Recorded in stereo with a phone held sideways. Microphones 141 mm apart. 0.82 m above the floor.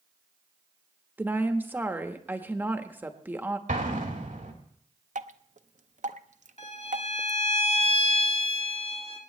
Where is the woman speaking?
15° right (ahead or behind), 1.1 m.